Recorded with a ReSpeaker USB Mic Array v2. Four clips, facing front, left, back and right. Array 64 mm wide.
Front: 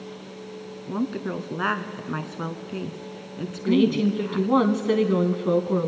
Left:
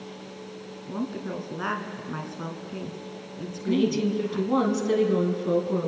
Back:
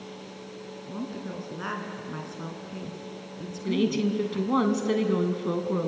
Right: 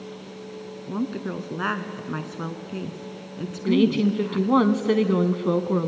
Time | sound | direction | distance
0.9 | a woman speaking | 25° right | 1.5 m
3.6 | a woman speaking | 70° right | 1.4 m